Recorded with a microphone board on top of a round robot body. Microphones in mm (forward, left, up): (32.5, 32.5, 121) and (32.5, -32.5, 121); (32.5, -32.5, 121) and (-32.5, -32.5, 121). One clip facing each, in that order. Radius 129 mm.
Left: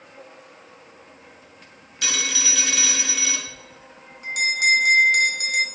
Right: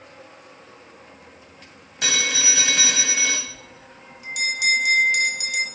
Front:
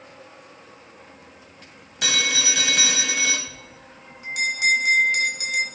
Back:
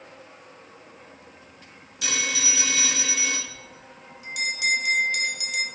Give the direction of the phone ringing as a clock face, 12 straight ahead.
1 o'clock.